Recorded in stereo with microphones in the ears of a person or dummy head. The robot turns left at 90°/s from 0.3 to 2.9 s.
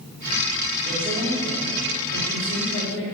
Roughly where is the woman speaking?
Behind right.